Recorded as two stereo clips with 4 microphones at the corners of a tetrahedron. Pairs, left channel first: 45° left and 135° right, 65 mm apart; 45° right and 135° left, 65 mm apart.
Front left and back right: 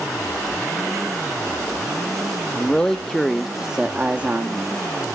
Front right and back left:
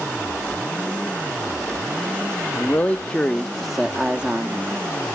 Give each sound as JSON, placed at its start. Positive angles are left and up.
{"t": 2.5, "sound": "a man speaking", "azimuth_deg": -15, "distance_m": 0.9}